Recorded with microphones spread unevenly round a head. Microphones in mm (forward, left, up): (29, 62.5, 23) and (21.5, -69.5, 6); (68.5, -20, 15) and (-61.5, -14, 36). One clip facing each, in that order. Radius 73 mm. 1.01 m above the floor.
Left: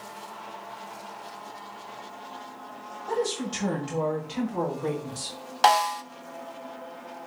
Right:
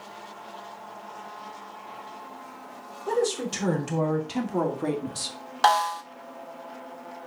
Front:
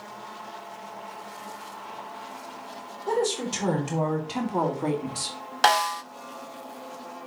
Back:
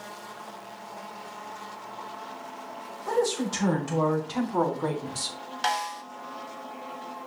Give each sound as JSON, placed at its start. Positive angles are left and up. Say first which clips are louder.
{"t": 3.1, "sound": "a woman speaking", "louder": "right 3 dB, even", "azimuth_deg": -70, "distance_m": 4.0}
{"t": 5.6, "sound": "a snare drum", "louder": "left 1 dB, front 7 dB", "azimuth_deg": 5, "distance_m": 0.7}